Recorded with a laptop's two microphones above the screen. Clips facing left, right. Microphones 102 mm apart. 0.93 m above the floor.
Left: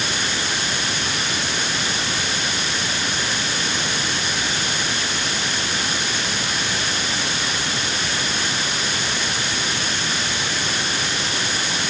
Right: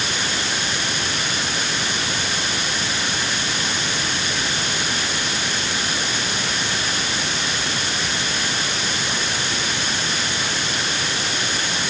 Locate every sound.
Only background noise.